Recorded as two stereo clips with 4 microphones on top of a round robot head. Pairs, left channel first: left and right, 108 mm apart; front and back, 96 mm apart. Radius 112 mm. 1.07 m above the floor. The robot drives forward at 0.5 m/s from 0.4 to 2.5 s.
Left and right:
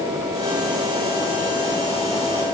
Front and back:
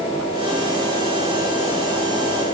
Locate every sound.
Only background noise.